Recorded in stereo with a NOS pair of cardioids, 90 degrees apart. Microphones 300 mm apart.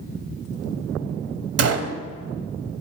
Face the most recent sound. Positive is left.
turn(degrees=-55)